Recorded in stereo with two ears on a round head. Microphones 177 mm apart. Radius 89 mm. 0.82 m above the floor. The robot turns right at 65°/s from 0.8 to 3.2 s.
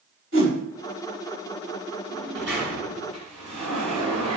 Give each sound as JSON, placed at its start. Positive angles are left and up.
{"t": 0.3, "sound": "a whoosh", "side_deg": -50, "distance_m": 4.0}
{"t": 2.1, "sound": "a sliding door", "azimuth_deg": -35, "distance_m": 5.0}